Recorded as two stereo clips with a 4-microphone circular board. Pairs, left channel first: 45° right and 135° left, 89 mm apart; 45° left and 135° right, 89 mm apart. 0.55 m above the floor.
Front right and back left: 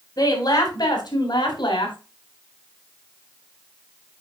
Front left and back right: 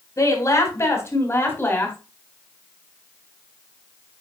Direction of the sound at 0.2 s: 5° right.